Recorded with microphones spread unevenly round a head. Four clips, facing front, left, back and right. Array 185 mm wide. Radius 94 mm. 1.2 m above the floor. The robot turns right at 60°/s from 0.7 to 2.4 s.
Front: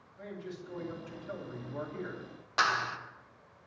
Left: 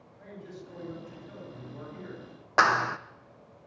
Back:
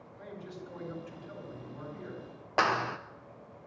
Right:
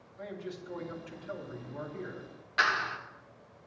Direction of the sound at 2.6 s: 125° left.